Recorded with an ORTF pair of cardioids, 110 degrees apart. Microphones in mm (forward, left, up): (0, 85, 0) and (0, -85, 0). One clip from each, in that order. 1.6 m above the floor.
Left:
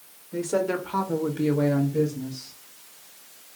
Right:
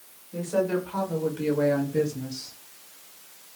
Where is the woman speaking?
55° left, 1.5 m; by 2.5 s 55° right, 1.0 m.